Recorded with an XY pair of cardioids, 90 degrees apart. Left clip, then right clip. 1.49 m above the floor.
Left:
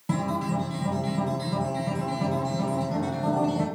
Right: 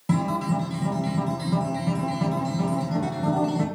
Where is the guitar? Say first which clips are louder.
Right 2 dB; 25° right, 0.8 m.